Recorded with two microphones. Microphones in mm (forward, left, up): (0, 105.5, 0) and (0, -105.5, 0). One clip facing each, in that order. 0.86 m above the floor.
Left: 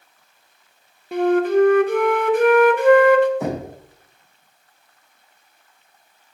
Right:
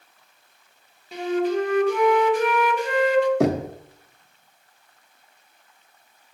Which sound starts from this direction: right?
Knocking, at 3.4 s.